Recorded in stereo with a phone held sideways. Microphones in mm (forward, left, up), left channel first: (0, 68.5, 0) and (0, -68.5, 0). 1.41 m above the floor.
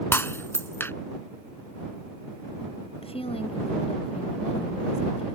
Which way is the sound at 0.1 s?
20° left (ahead or behind).